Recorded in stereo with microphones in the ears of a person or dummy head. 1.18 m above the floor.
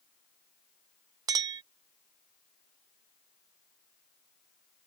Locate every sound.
1.3 s a clink: 25° right (ahead or behind)